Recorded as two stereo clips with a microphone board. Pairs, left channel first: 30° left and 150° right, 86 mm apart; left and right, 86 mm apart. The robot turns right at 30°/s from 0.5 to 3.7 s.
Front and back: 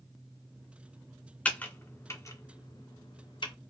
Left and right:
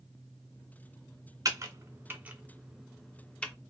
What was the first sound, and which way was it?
Typing on a keyboard, 45° right.